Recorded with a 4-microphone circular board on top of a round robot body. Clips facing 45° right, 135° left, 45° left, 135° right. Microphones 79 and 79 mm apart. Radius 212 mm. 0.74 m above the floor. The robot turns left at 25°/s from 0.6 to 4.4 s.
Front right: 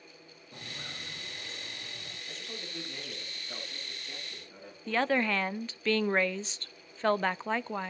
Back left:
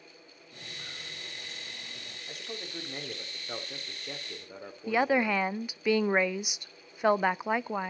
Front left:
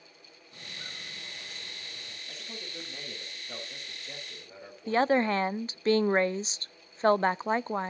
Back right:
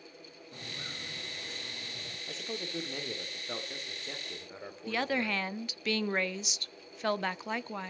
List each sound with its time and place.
0.5 s footsteps: 90° right, 8.5 m; by 2.2 s 120° right, 9.5 m
2.3 s a man speaking: 150° right, 2.5 m; by 5.5 s 160° left, 2.5 m
4.9 s a woman speaking: 65° left, 0.5 m